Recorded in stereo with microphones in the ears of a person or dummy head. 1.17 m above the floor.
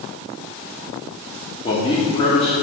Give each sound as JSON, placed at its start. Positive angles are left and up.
{"t": 1.6, "sound": "a man speaking", "side_deg": 25, "distance_m": 1.9}